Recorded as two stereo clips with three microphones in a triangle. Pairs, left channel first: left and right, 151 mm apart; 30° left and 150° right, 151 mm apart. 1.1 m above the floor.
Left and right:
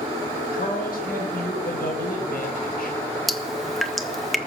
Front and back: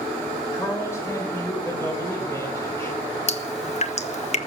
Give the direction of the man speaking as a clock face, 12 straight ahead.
9 o'clock.